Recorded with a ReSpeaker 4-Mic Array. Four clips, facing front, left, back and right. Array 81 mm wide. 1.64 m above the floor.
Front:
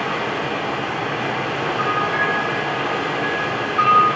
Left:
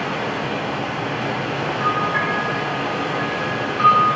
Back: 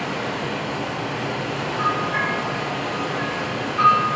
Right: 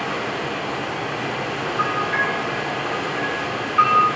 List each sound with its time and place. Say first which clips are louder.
0.0 s running water: left 1 dB, front 3 dB; 10° right, 4 m
1.8 s a bell: left 1 dB, front 1 dB; 70° right, 10 m